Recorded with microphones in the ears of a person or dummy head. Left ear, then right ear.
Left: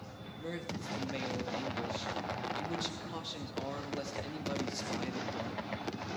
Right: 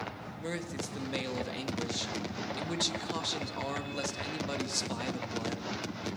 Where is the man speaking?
20° right (ahead or behind), 1.9 m.